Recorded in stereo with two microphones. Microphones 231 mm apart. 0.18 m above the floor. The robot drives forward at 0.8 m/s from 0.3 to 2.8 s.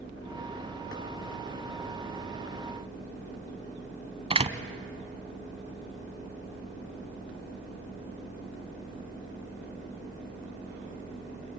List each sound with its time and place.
4.3 s a door slam: 25° right (ahead or behind), 1.0 m